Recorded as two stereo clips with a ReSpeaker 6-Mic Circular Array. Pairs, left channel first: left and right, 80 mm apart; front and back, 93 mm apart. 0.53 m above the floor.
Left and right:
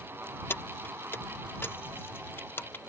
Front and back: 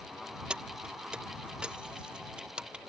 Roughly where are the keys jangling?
Left.